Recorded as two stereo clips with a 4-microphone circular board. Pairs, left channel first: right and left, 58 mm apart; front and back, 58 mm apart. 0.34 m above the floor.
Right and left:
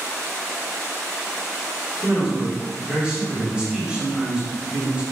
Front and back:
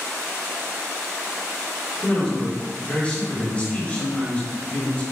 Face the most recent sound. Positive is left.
turn(degrees=40)